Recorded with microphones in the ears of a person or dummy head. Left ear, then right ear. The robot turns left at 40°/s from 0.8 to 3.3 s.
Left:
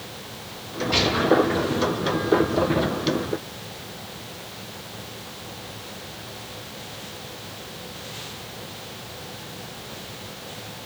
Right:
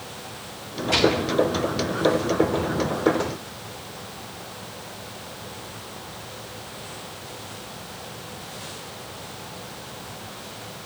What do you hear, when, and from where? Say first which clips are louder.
0.9 s a gunshot: right 1 dB; 25° right (ahead or behind), 2.5 m; by 1.2 s 10° right (ahead or behind), 2.5 m